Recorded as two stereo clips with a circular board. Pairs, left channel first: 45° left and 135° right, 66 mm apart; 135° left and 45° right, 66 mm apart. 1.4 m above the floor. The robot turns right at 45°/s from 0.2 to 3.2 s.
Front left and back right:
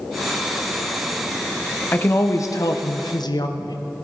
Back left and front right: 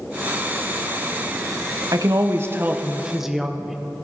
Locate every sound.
1.9 s a woman speaking: 20° right, 0.8 m; by 3.8 s 40° left, 0.8 m